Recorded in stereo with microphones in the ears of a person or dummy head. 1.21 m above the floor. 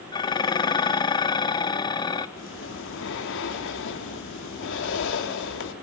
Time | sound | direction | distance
0.1 | dishes clattering | 20° left (ahead or behind) | 1.0 m
2.4 | breathing | 65° left (ahead or behind) | 2 m